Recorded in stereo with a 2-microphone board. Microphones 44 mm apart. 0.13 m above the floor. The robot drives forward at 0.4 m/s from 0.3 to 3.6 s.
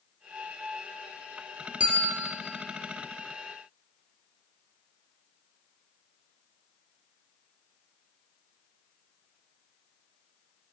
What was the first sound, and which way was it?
A bell, 25° right (ahead or behind).